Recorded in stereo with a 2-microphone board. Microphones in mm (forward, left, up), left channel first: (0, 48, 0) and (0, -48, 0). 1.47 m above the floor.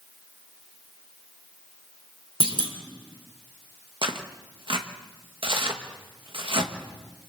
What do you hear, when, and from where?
2.4 s a clunk: 70° right (ahead or behind), 2.5 m
4.0 s tearing paper: 60° right (ahead or behind), 1.5 m